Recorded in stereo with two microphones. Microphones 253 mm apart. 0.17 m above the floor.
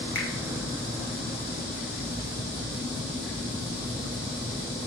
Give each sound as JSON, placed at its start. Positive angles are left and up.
{"t": 0.1, "sound": "a finger snap", "side_deg": 55, "distance_m": 3.0}